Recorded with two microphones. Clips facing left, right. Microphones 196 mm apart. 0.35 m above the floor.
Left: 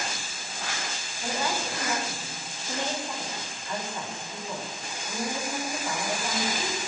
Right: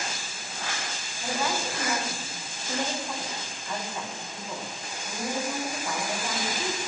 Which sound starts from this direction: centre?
A woman speaking, at 1.2 s.